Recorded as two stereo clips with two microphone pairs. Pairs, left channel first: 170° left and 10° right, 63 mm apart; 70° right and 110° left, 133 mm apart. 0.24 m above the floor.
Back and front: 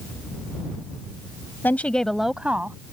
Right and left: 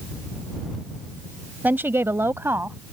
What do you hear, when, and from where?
1.6 s a woman speaking: 170° left; by 2.8 s 40° left